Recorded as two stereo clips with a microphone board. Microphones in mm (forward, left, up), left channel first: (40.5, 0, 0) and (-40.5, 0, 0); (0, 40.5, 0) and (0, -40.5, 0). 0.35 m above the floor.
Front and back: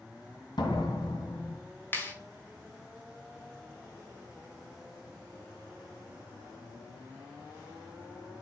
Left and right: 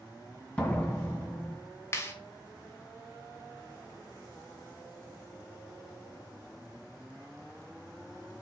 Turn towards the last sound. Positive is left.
turn(degrees=50)